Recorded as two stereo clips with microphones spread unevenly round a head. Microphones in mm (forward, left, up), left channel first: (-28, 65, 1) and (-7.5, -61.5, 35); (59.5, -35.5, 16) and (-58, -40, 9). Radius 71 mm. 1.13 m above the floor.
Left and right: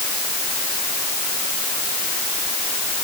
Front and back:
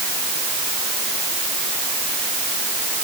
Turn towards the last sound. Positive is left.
No sound to turn to.